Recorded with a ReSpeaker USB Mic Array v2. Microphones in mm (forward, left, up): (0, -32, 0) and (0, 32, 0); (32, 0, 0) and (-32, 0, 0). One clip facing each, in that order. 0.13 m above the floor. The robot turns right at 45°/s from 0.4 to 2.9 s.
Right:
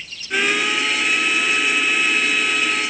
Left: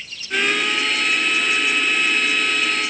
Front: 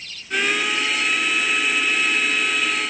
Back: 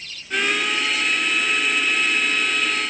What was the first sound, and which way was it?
Only background noise.